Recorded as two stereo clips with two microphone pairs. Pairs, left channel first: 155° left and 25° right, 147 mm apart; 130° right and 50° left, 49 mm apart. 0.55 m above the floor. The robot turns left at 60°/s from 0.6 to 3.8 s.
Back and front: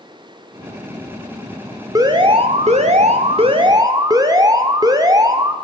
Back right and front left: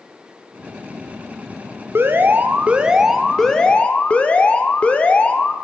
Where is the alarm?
30° left, 1.4 m; by 5.5 s 80° right, 1.4 m.